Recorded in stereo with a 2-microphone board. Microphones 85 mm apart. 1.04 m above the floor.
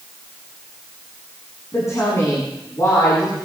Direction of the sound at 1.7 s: 35° left (ahead or behind).